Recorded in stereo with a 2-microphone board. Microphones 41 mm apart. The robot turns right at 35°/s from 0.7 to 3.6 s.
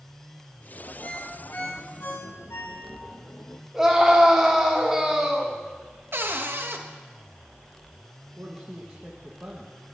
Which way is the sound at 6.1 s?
65° right (ahead or behind).